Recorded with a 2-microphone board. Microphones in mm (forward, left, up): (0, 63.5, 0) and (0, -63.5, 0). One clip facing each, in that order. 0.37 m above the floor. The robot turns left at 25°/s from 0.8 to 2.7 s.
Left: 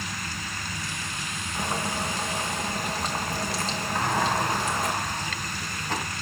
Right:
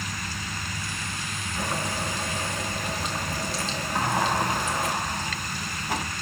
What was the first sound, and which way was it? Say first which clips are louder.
Boiling: left 1 dB; 15° left (ahead or behind).